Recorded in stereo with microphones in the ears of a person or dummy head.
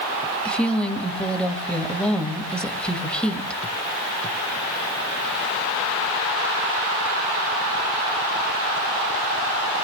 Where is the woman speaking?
5° left (ahead or behind), 1.8 m.